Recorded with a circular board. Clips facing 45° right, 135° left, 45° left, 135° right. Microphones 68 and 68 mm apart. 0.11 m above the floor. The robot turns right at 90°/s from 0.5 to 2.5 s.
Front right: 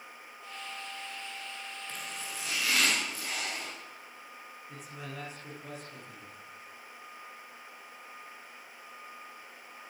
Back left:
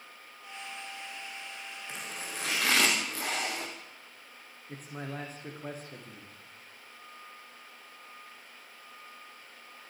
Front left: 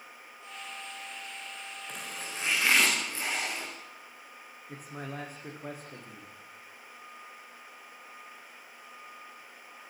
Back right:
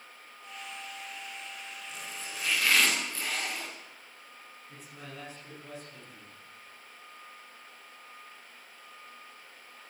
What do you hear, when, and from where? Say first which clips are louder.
1.9 s chopping: back left 3 dB, front left 3 dB; 60° left, 8 m; by 3.7 s 115° left, 8 m
4.7 s a man speaking: back left 5 dB, front left 7 dB; 85° left, 8.5 m